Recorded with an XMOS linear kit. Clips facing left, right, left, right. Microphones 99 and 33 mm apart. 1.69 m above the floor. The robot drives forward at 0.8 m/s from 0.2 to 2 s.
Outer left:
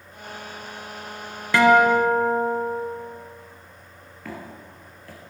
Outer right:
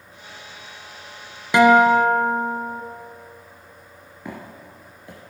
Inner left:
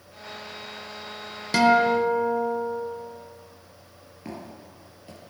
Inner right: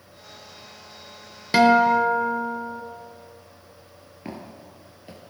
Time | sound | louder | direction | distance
1.5 | a guitar | outer right 2 dB, inner right 3 dB | 15° right (ahead or behind) | 1.0 m
4.2 | footsteps | outer right 1 dB, inner right 1 dB | 20° right (ahead or behind) | 1.9 m